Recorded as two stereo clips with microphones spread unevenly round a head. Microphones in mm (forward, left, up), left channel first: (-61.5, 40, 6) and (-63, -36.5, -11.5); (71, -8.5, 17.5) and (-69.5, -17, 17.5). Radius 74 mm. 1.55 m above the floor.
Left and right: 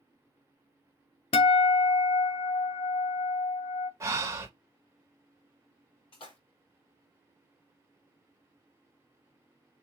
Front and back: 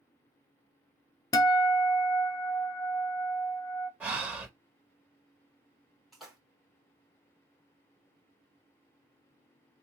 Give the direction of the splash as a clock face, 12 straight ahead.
9 o'clock.